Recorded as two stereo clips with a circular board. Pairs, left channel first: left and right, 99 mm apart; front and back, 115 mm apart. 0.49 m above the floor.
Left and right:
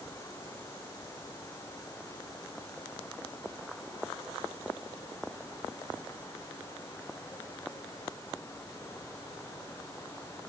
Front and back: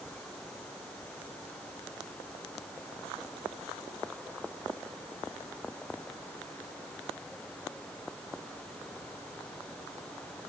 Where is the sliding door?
I don't hear a sliding door.